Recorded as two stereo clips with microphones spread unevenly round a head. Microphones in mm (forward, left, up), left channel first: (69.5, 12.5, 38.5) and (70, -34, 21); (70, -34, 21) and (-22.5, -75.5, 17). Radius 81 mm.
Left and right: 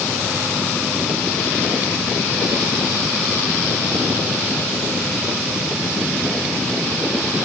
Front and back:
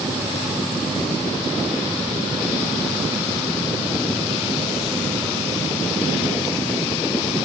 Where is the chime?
I don't hear a chime.